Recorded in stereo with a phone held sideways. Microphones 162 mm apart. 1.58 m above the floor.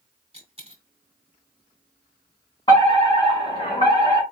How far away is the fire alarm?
About 3.5 m.